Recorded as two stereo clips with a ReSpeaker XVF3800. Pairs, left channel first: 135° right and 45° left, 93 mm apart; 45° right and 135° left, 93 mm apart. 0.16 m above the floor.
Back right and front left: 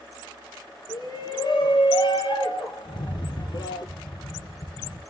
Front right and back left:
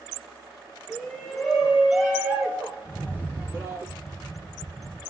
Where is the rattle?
115° right, 3 m.